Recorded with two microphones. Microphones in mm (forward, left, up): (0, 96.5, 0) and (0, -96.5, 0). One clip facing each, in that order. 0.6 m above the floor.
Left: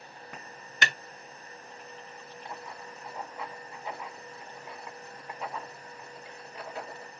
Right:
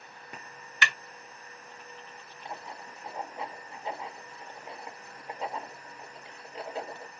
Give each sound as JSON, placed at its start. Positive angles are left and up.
{"t": 0.8, "sound": "a snare drum", "side_deg": 35}
{"t": 2.5, "sound": "writing", "side_deg": -20}